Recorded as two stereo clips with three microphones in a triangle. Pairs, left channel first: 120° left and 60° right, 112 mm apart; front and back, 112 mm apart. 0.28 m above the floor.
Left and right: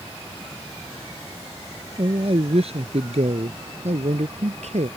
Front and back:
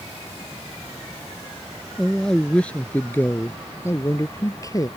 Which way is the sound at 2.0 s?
90° right.